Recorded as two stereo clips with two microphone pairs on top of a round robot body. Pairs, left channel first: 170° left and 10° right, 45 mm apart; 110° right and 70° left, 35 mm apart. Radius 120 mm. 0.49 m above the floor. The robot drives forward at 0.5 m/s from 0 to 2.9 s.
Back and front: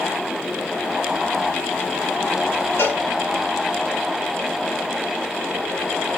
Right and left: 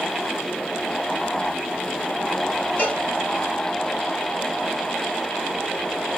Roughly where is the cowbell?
Behind.